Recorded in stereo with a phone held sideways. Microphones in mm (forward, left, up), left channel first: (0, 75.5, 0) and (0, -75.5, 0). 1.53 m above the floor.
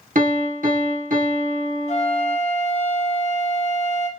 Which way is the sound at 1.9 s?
45° left (ahead or behind).